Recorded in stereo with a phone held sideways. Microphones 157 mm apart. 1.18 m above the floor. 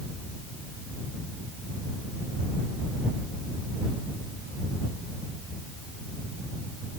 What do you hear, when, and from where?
Only background noise.